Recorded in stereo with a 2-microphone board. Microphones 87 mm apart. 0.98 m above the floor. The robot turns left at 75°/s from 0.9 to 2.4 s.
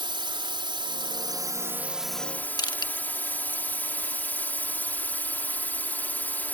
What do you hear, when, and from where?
0.0 s a drone: 90° right; by 6.5 s 155° left
2.6 s crushing: 55° left (ahead or behind)